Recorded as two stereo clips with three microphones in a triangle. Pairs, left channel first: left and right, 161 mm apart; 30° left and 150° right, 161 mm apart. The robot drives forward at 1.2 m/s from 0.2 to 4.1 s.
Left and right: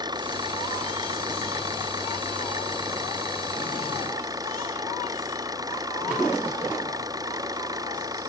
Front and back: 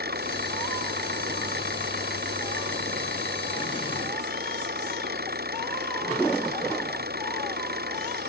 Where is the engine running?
155° right.